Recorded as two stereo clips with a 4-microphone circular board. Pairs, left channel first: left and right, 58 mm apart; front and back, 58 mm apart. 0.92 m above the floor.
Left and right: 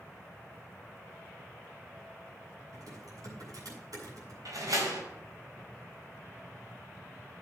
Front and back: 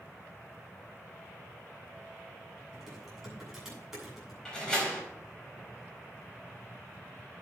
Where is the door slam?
75° right, 4.5 m.